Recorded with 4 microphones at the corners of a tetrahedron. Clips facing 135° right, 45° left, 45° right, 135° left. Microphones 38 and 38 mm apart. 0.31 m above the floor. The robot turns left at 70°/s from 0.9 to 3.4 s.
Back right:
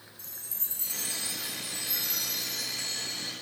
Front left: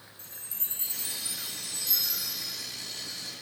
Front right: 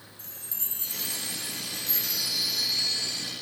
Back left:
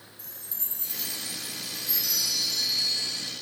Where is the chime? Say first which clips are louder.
Front left 1 dB, front right 2 dB; 5° right, 2 m; by 3.3 s 175° right, 2 m.